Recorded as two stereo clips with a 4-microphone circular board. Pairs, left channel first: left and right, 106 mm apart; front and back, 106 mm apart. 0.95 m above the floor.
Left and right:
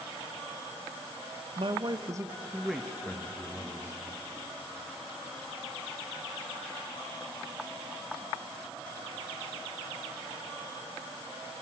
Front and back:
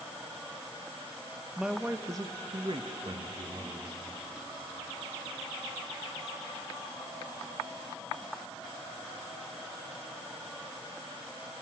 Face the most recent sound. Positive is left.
turn(degrees=155)